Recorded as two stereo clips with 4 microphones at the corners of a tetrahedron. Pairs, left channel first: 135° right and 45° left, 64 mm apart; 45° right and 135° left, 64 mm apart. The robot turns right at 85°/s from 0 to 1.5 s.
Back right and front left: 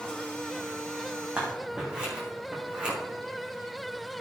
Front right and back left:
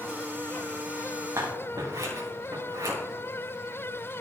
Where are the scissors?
110° left, 4.5 m; by 3.0 s 120° left, 4.5 m.